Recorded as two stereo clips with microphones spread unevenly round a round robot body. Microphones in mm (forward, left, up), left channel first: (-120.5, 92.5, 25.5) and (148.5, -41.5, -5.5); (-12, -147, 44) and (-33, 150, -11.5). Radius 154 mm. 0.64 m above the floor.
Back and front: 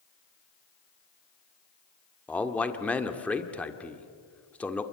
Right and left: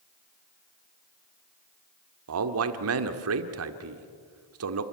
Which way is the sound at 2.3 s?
65° left.